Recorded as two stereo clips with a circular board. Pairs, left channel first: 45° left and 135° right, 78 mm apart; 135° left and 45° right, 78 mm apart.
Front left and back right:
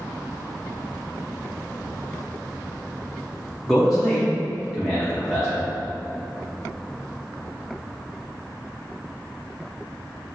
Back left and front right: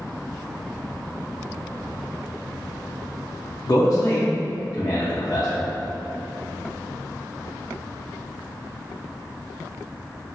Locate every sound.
3.7 s a man speaking: 135° left, 0.7 m